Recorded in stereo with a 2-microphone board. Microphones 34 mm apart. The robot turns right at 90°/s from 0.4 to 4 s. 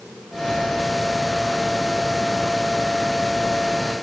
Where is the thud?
No thud in this recording.